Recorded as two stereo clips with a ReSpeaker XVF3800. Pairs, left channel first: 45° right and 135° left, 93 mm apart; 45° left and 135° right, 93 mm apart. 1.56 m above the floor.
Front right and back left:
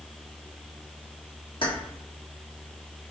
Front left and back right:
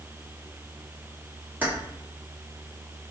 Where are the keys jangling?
65° right, 1.4 m.